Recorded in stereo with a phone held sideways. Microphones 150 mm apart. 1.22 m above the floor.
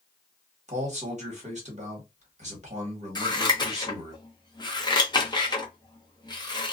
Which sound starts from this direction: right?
A man speaking, at 0.7 s.